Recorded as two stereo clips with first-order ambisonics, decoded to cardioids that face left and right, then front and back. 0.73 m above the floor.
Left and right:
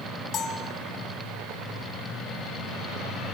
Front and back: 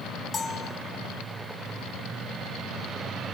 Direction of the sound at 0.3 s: 55° left.